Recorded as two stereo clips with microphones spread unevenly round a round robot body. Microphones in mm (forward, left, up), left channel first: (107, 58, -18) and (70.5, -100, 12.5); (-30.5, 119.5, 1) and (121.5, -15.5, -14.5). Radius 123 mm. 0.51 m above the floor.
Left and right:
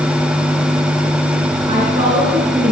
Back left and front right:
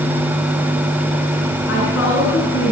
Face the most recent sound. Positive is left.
turn(degrees=-175)